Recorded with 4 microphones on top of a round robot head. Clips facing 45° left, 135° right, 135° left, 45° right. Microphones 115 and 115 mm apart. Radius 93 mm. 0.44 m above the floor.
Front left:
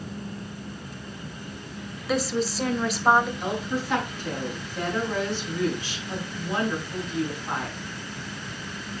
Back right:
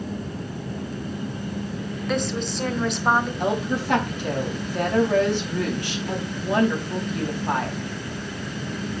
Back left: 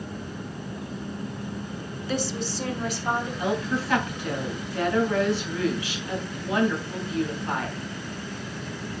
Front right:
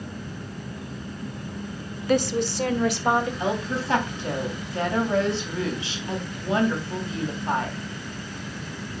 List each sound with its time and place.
2.1 s a woman speaking: 40° right, 1.5 m
3.4 s a woman speaking: 105° right, 4 m